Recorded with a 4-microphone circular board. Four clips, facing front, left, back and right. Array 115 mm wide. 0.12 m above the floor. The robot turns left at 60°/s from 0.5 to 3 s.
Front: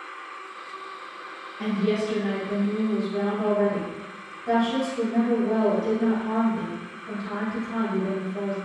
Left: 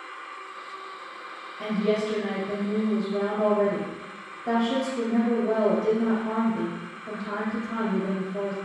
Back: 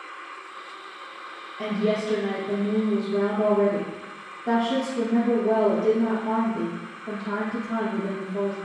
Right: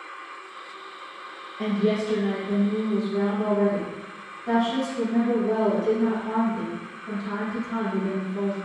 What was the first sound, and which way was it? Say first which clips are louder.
A woman speaking: right 1 dB, even; 140° right.